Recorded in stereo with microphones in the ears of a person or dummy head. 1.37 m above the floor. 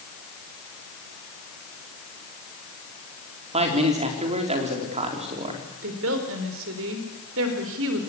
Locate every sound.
3.5 s a man speaking: 40° right (ahead or behind), 3.5 m
5.8 s a woman speaking: 70° right (ahead or behind), 4 m